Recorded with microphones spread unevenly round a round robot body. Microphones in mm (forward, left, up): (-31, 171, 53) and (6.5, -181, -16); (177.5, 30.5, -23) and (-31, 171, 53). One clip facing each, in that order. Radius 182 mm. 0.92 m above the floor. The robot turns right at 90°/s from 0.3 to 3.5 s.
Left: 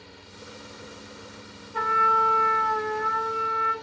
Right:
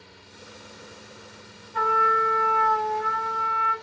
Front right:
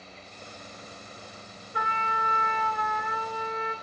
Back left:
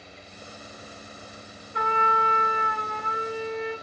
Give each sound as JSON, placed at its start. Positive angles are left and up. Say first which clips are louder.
{"t": 1.7, "sound": "a trumpet", "louder": "right 3 dB, back left 8 dB", "azimuth_deg": 40, "distance_m": 5.0}